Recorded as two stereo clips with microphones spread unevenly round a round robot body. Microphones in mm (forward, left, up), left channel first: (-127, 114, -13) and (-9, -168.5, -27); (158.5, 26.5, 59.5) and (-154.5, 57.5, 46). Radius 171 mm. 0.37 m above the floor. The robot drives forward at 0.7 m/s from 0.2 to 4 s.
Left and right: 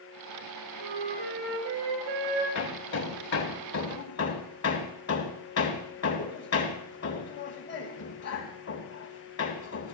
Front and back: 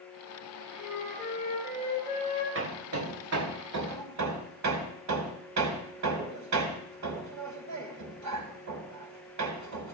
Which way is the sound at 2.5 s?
135° left.